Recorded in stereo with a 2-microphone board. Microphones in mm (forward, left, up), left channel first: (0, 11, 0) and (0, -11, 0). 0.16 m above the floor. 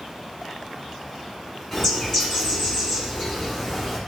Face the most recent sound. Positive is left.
turn(degrees=25)  # may be behind; listen again after turning